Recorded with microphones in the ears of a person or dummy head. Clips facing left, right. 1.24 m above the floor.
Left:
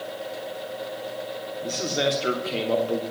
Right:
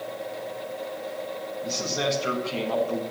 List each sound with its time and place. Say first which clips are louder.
1.6 s a man speaking: left 3 dB; 35° left (ahead or behind), 3 m